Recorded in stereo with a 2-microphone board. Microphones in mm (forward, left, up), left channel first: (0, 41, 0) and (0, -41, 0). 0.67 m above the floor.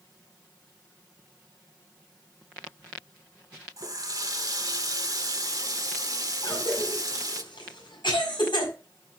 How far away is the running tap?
About 1.1 m.